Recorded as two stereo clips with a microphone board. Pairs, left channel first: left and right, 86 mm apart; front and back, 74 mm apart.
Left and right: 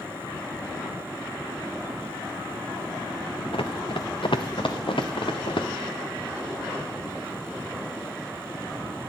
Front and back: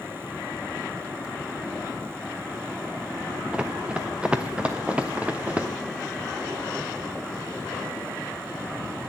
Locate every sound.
3.5 s running footsteps: 105° left, 1.0 m; by 5.7 s 110° left, 2 m